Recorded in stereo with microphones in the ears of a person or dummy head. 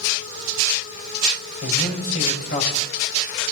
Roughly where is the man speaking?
Left.